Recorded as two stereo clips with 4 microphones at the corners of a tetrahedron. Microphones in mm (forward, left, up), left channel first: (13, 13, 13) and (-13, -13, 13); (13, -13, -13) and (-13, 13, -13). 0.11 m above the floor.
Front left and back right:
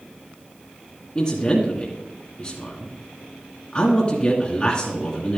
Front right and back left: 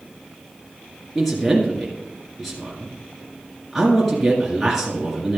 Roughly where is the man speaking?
Ahead left.